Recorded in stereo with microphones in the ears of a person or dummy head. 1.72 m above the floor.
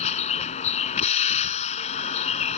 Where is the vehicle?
40° left (ahead or behind).